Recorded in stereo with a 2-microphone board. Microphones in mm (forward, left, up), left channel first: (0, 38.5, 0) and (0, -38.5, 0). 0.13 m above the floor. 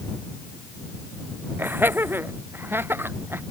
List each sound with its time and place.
1.6 s laughter: 25° right (ahead or behind); by 3.4 s 30° right (ahead or behind)